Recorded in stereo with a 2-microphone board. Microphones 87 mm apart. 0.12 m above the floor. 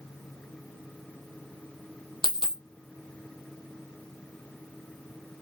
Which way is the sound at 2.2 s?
75° left (ahead or behind).